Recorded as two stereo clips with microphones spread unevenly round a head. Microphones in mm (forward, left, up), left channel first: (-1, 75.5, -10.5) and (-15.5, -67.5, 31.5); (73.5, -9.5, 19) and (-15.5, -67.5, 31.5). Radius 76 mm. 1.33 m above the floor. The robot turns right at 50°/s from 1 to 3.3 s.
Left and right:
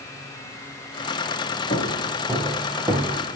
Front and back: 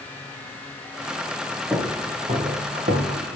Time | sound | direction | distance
1.7 | footsteps | 125° left | 6 m